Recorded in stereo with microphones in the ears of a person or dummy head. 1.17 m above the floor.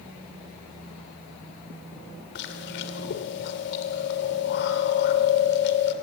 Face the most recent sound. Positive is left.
turn(degrees=65)  # may be behind; listen again after turning